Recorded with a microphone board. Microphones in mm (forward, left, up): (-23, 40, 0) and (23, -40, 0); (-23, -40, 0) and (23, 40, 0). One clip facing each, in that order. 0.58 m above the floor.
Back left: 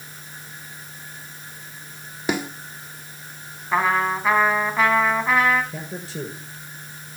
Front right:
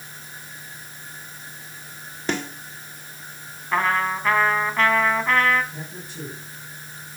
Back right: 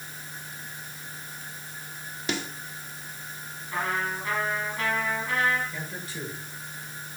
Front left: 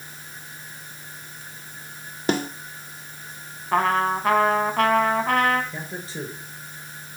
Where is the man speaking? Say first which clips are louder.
Back left 4 dB, front left 3 dB; 125° left, 8 m.